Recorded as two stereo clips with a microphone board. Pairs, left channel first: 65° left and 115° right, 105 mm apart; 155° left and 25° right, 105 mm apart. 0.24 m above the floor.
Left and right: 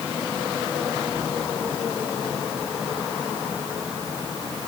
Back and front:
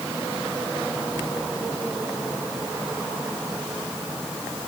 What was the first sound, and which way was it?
Only background noise.